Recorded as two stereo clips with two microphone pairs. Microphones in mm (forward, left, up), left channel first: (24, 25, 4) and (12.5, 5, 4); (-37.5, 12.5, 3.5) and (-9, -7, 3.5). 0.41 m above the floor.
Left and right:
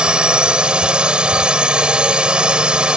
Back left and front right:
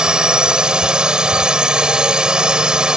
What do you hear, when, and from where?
0.0 s a drone: 95° right